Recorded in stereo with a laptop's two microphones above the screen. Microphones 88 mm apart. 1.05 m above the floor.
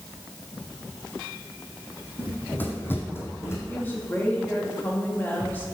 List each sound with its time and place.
2.2 s running footsteps: 20° left (ahead or behind), 3 m; by 3.6 s 30° left (ahead or behind), 3.5 m
3.7 s a woman speaking: 25° left (ahead or behind), 1.9 m